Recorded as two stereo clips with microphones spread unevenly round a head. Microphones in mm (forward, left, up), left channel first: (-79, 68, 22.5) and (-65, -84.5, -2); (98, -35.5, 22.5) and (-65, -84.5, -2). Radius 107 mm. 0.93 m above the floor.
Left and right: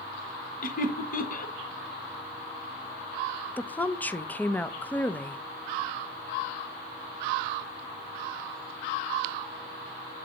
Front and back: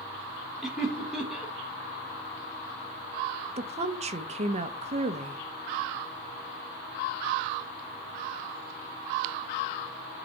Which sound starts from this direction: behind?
A woman speaking, at 3.6 s.